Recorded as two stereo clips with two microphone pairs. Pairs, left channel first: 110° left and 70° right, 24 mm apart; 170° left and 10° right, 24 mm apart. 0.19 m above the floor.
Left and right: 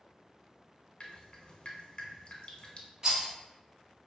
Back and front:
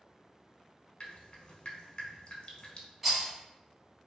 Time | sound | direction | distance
1.0 | dripping | 140° left | 0.6 m
3.0 | a rattle | 75° right | 1.2 m